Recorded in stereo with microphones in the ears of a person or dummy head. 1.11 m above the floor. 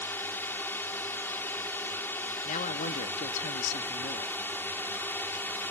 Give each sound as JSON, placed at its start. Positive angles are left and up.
{"t": 0.0, "sound": "a drone", "side_deg": 10}
{"t": 2.5, "sound": "a man speaking", "side_deg": 40}